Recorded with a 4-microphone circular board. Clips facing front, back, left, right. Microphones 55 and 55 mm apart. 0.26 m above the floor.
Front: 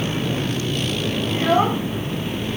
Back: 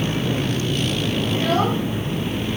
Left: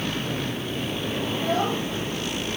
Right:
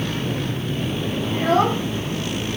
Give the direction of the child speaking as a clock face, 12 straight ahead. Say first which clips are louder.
Front 3 dB, right 7 dB; 2 o'clock.